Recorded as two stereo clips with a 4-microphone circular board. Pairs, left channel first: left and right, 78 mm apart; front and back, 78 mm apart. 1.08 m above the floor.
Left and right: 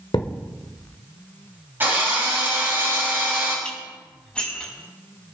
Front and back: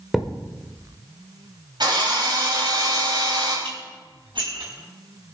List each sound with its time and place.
0.1 s a thud: 95° left, 1.5 m
1.8 s a drill: 155° right, 6.5 m
3.6 s dishes clattering: 170° left, 6 m